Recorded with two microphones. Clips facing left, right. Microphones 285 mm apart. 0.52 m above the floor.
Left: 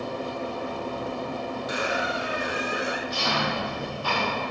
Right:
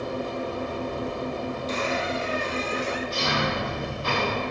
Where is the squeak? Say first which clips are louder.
Right 1 dB; 10° left (ahead or behind), 0.8 m.